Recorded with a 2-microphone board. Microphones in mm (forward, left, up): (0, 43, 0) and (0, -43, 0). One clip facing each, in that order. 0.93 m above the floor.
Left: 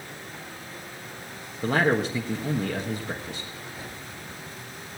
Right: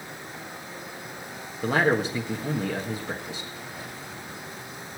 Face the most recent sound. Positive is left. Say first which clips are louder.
# even
turn(degrees=0)  # may be behind; listen again after turning